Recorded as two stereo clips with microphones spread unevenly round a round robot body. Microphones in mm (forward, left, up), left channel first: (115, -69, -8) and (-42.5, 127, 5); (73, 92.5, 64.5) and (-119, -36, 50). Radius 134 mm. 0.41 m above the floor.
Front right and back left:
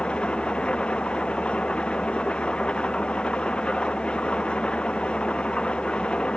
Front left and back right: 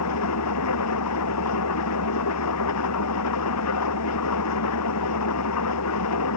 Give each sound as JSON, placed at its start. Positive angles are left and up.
{"t": 0.0, "sound": "an engine running", "azimuth_deg": 35}